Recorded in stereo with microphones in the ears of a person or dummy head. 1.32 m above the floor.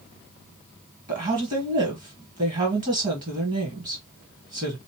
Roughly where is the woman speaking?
Right.